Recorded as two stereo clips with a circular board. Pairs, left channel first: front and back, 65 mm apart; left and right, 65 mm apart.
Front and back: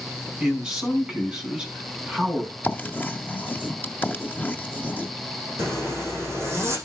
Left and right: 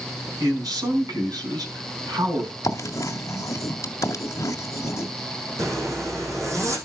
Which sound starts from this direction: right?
A man speaking, at 0.4 s.